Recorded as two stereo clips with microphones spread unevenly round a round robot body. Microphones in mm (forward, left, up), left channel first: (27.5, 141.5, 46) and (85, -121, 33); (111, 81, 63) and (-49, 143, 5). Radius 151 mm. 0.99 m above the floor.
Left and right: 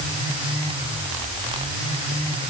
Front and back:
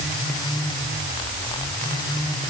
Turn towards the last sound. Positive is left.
No sound to turn to.